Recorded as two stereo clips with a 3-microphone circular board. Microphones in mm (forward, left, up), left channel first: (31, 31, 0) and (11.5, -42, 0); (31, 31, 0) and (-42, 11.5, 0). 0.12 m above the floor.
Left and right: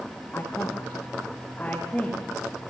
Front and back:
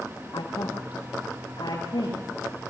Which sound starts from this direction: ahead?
A woman speaking, at 0.3 s.